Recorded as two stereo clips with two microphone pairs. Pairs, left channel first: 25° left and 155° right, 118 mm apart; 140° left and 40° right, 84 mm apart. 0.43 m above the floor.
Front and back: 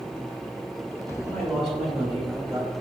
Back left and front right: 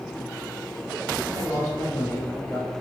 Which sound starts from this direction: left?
A man speaking, at 1.2 s.